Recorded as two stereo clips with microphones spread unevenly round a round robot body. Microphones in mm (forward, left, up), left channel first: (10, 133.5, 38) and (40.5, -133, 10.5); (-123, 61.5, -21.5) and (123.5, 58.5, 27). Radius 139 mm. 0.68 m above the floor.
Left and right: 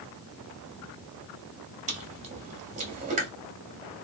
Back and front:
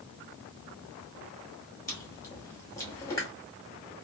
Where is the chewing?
125° right, 1.0 m.